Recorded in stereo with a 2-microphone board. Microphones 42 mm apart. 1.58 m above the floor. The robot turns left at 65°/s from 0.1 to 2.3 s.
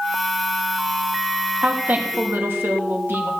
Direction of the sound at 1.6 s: 25° right.